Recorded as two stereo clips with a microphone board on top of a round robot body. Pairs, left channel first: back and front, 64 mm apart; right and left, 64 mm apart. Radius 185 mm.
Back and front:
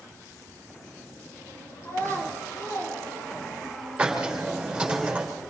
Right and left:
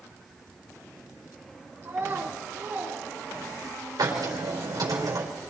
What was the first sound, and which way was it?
A child speaking, 135° left.